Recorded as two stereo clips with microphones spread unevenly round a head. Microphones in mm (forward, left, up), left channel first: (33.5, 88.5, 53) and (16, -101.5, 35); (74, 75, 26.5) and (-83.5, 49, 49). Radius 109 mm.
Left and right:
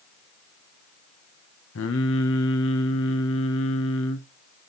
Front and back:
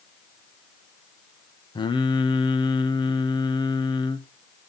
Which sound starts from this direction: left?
Singing, at 1.8 s.